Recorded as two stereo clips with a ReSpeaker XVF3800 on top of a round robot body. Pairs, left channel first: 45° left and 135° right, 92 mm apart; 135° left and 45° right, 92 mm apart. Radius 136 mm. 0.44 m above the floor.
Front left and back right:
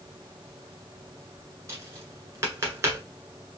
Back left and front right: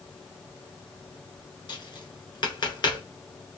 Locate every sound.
1.7 s tapping: 170° left, 1.8 m